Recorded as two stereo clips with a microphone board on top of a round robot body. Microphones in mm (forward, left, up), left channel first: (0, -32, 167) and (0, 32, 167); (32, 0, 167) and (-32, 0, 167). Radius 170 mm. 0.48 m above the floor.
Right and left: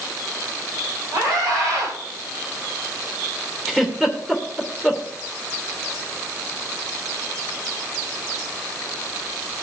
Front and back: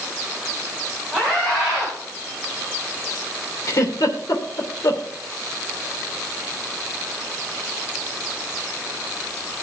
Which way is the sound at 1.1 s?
95° left.